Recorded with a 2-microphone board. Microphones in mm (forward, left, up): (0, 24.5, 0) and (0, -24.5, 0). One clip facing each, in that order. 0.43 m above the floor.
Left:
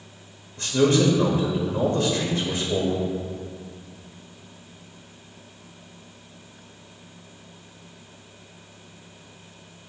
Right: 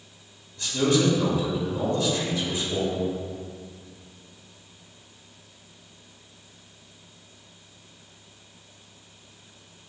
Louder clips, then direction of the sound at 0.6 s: Left 3 dB; 50° left (ahead or behind).